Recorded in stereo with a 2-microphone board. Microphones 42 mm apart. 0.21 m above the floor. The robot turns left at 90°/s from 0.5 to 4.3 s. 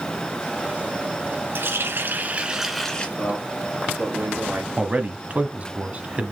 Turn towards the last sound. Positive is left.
turn(degrees=-35)  # may be behind; listen again after turning